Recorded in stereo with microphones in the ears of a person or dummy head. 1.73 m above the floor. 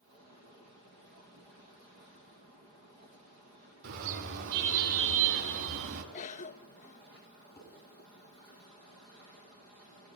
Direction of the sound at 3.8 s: 75° right (ahead or behind).